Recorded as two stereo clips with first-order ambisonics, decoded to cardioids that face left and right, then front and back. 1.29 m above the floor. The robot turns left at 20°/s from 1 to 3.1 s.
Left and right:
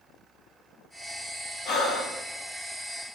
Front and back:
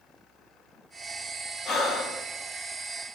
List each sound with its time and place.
1.6 s breathing: 50° left, 1.2 m; by 2.2 s 40° left, 1.2 m